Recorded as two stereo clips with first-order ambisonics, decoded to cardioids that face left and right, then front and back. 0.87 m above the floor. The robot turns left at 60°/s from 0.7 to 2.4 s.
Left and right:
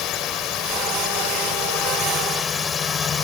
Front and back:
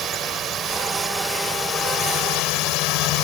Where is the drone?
125° left; by 3.2 s 25° left.